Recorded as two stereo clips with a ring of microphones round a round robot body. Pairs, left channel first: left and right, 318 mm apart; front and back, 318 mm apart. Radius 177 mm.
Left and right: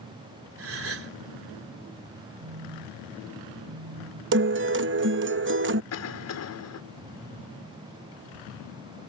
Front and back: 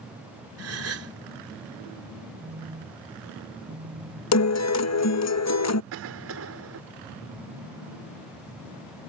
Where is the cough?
130° left.